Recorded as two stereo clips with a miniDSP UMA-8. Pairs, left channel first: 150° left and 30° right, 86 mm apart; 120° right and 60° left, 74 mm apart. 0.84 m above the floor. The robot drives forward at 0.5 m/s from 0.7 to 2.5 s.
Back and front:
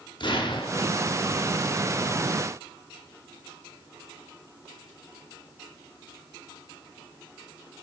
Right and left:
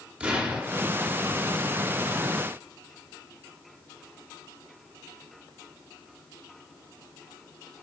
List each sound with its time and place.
0.2 s an explosion: 130° left, 0.8 m; by 1.0 s 140° left, 0.9 m